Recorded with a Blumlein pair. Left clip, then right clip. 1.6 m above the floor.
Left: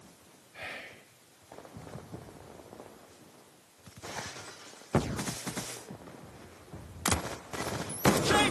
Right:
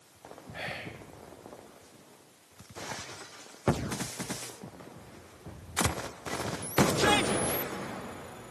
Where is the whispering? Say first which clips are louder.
Right 3 dB; 65° right, 1.3 m.